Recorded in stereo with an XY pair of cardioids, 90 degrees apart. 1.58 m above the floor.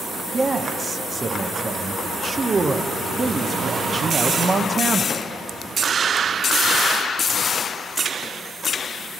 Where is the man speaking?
40° right, 0.8 m.